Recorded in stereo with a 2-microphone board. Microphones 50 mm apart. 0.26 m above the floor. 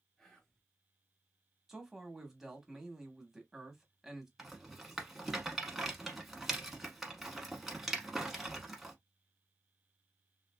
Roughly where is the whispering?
Centre.